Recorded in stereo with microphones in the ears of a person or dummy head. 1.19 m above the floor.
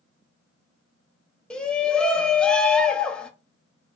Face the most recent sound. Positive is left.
turn(degrees=5)  # may be behind; listen again after turning